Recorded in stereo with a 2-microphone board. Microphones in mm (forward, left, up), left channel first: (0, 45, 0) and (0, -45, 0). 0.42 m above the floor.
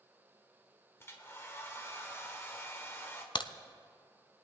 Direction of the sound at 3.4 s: 70° left (ahead or behind).